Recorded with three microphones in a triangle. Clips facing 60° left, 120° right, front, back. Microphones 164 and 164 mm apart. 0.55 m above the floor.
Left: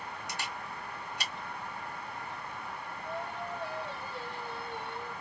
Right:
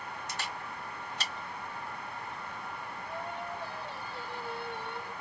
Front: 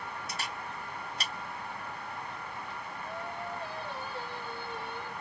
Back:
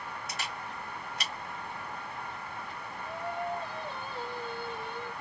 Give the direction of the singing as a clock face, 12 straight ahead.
8 o'clock.